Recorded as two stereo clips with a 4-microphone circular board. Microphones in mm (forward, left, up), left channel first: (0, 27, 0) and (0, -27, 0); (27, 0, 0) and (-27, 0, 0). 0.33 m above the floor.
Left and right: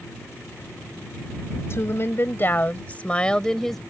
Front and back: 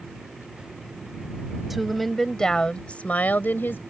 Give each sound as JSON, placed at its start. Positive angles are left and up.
{"t": 1.7, "sound": "a woman speaking", "azimuth_deg": 90}